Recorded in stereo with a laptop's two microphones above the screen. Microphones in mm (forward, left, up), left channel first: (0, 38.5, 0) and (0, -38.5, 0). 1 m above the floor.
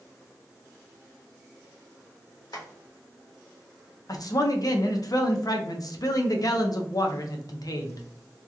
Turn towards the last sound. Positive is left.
turn(degrees=60)  # may be behind; listen again after turning